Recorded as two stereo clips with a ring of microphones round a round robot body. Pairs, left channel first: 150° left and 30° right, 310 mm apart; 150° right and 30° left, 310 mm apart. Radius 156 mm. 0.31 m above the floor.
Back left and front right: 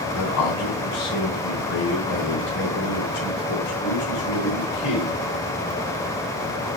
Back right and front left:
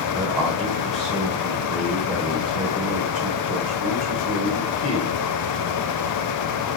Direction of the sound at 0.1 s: 120° left.